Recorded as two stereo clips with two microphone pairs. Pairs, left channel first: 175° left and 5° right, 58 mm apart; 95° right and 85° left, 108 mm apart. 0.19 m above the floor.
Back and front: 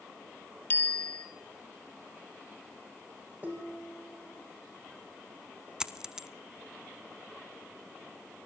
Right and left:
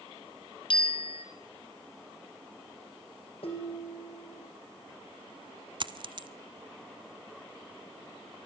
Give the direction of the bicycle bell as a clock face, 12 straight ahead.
4 o'clock.